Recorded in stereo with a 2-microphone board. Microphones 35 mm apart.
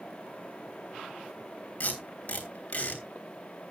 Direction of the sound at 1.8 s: 40° left (ahead or behind).